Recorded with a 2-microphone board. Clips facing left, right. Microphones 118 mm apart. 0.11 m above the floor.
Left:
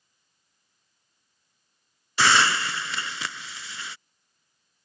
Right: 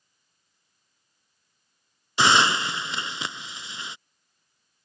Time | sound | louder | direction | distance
2.2 | a hiss | right 1 dB | 20° right (ahead or behind) | ?